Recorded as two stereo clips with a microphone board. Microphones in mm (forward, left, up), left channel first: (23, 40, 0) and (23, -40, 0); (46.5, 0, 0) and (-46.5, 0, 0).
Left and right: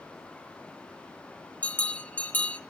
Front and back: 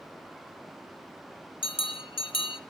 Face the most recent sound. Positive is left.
turn(degrees=20)